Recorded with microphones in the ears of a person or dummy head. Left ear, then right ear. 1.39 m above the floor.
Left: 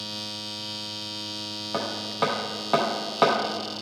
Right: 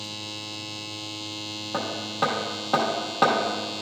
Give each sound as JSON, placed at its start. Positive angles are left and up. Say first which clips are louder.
{"t": 1.7, "sound": "hammering", "louder": "even", "side_deg": 10, "distance_m": 0.7}